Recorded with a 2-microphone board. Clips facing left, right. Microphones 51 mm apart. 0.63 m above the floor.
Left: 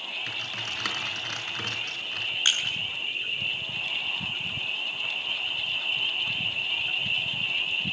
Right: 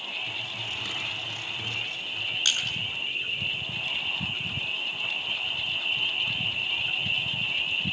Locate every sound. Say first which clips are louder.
0.3 s typing on a keyboard: left 1 dB; 85° left, 5.5 m
2.5 s crushing: left 2 dB; 35° left (ahead or behind), 8.5 m